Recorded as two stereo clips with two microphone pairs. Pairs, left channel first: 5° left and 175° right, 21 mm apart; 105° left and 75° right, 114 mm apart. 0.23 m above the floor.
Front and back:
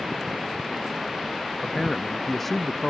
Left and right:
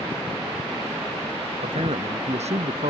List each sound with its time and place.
1.6 s a man speaking: 75° right